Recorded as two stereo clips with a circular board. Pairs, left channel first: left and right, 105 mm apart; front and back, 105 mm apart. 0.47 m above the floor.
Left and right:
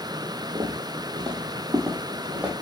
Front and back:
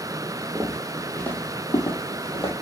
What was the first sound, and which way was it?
Footsteps, 105° right.